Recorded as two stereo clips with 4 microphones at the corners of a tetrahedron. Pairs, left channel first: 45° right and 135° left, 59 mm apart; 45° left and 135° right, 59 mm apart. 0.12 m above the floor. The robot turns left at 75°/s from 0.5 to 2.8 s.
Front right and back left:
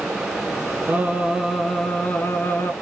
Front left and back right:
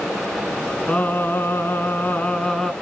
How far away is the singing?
About 1.4 m.